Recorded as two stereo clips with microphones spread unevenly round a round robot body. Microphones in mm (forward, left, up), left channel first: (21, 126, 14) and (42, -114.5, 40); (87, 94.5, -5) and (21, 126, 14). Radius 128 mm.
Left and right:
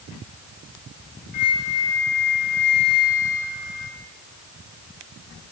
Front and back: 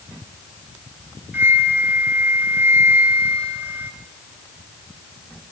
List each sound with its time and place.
1.3 s a flute: 90° left, 2 m